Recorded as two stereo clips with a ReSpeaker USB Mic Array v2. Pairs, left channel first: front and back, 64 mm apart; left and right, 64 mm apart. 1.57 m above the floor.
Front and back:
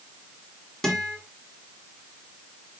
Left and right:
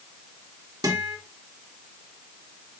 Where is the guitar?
80° right, 2 m.